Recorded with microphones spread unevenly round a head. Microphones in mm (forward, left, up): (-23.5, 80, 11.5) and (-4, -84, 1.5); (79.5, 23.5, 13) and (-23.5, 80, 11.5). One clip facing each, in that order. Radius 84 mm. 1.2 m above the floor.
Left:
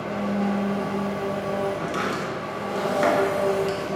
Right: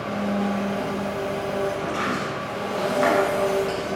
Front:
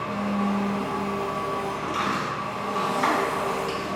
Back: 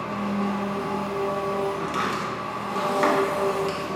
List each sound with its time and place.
0.0 s an engine running: 120° right, 1.4 m
1.8 s chopping: 135° left, 0.7 m